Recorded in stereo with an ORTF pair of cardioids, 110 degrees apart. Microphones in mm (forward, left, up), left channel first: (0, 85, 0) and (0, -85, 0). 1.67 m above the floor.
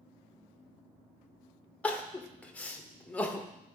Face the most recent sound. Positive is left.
turn(degrees=10)